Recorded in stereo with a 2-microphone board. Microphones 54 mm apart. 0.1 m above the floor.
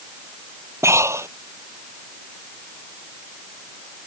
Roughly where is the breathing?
Right.